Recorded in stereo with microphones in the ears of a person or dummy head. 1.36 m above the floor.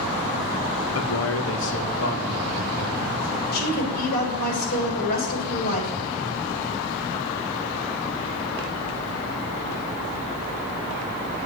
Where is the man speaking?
75° left (ahead or behind), 1.7 m; by 3.4 s 50° left (ahead or behind), 3.5 m.